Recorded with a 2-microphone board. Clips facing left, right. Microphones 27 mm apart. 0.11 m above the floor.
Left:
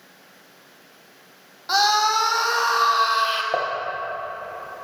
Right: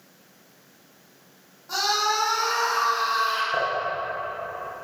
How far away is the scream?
About 4 m.